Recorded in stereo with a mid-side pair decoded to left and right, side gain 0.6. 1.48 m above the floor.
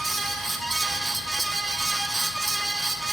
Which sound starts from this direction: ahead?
A fan, at 0.0 s.